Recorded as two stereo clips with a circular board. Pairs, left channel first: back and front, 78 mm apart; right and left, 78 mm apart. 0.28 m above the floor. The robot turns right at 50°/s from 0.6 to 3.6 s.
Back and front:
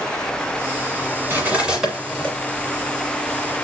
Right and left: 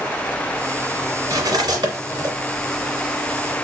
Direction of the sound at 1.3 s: 60° left.